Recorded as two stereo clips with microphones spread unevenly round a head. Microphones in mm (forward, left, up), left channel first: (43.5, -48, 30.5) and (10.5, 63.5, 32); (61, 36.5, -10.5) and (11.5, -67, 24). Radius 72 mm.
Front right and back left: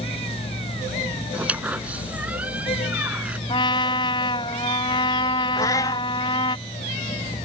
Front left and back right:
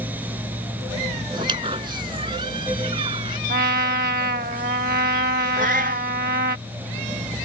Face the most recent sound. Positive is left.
turn(degrees=-140)